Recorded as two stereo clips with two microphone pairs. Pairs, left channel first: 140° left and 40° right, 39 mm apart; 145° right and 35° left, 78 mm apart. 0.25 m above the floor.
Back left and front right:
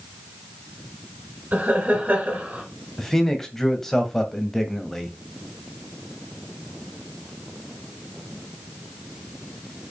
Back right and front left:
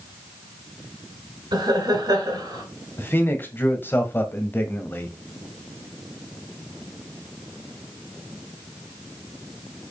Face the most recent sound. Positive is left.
turn(degrees=-150)